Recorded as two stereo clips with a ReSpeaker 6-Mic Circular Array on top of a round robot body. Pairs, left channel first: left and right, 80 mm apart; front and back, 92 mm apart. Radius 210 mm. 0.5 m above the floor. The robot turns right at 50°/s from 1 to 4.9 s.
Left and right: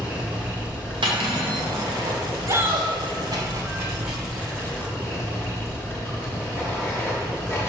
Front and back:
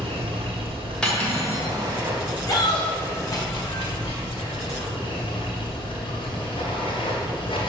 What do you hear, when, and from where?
0.0 s running water: 165° right, 1.9 m; by 7.7 s 30° left, 1.9 m
1.0 s cutlery clinking: 80° right, 1.6 m; by 1.7 s 50° right, 1.6 m
2.5 s a shout: 45° right, 1.7 m; by 2.9 s 20° right, 1.7 m